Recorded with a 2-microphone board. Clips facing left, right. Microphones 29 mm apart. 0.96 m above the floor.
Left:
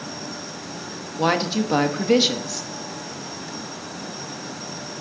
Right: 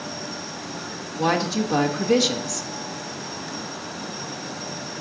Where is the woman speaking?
40° left (ahead or behind), 1.1 m.